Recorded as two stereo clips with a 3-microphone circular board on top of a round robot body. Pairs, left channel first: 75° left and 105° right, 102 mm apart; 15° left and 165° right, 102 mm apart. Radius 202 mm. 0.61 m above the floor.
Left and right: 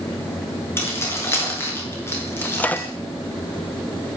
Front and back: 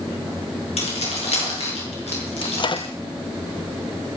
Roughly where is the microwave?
Ahead.